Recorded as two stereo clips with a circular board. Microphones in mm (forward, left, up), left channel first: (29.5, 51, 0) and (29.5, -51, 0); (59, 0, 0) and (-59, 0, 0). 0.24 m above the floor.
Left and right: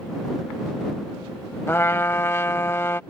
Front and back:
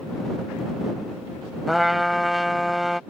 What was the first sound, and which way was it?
A trumpet, 90° left.